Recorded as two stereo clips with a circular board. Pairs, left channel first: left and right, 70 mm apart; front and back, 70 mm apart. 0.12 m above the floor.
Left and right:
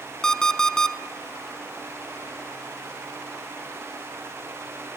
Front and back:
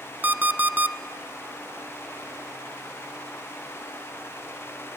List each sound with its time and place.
0.2 s an alarm clock: 160° left, 0.6 m